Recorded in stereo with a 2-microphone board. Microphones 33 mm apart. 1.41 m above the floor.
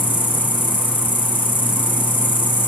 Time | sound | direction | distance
0.0 | an insect | 70° left (ahead or behind) | 0.7 m